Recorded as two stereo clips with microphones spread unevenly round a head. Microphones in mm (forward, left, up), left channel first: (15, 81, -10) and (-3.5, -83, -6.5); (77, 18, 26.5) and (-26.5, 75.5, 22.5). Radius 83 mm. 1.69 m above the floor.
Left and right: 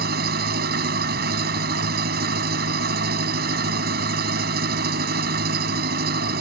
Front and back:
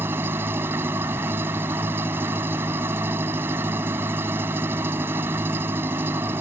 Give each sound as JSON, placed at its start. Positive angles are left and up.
{"t": 0.0, "sound": "an engine running", "azimuth_deg": -130}